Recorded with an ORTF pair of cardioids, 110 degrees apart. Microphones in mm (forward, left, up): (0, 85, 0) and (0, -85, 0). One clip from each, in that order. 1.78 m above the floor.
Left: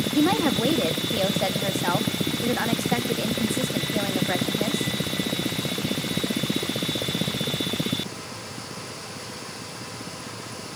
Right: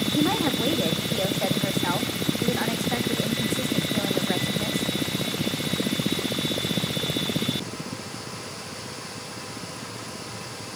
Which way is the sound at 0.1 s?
20° left.